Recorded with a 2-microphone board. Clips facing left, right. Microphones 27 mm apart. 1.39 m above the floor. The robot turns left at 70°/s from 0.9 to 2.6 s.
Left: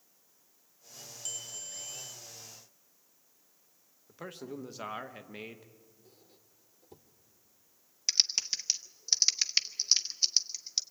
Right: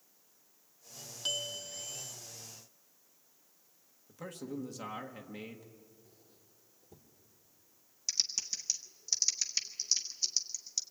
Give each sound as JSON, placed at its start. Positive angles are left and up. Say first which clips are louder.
{"t": 1.2, "sound": "a bell", "louder": "right 8 dB", "azimuth_deg": -130, "distance_m": 1.8}
{"t": 4.1, "sound": "a man speaking", "louder": "even", "side_deg": 25, "distance_m": 1.5}
{"t": 6.0, "sound": "a squeak", "louder": "left 2 dB", "side_deg": 65, "distance_m": 1.9}
{"t": 8.1, "sound": "typing on a keyboard", "louder": "left 6 dB", "side_deg": 50, "distance_m": 0.8}